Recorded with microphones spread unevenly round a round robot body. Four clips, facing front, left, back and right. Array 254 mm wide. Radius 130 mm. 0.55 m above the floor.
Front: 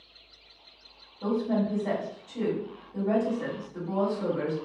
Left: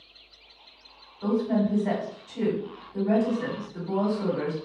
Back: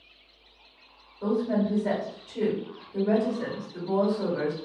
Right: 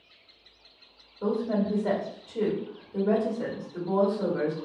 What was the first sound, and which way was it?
A woman speaking, 100° right.